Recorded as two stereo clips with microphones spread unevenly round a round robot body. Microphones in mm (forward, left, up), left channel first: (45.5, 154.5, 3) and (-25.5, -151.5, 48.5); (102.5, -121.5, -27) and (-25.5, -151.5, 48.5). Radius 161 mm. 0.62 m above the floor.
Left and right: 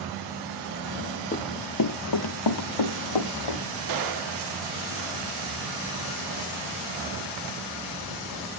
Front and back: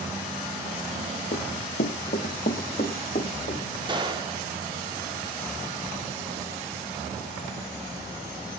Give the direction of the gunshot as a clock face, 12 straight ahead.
3 o'clock.